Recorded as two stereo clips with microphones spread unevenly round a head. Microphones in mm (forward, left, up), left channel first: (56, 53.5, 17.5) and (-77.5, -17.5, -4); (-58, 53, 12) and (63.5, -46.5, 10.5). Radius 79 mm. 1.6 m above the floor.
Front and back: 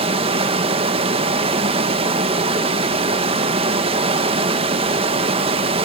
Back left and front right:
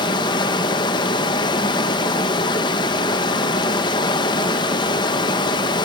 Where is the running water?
175° left, 0.8 m.